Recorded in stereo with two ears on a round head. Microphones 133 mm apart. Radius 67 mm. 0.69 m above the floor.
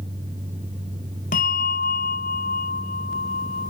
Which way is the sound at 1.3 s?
60° left (ahead or behind).